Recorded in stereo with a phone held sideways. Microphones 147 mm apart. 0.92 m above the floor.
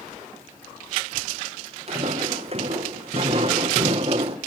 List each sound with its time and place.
1.9 s footsteps: 45° right (ahead or behind), 3 m; by 4.4 s 40° right (ahead or behind), 1.4 m